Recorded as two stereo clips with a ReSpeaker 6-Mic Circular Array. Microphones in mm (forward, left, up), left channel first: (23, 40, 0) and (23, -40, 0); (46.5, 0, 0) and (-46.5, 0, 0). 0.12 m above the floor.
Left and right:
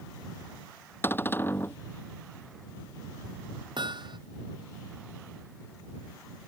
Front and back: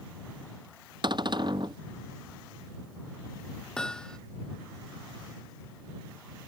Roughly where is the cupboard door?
Behind left.